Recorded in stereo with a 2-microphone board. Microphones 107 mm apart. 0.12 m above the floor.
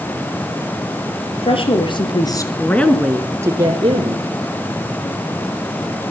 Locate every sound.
1.3 s a woman speaking: 60° left (ahead or behind), 3 m; by 4.2 s 55° right (ahead or behind), 2 m